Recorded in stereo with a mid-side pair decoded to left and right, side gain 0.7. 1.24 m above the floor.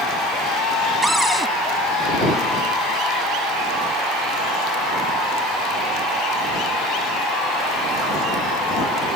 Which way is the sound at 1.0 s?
5° right.